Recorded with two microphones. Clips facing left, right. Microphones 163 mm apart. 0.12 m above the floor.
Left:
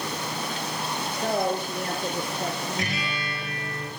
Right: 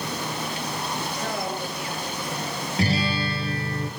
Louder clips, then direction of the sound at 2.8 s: Right 7 dB; 30° right (ahead or behind).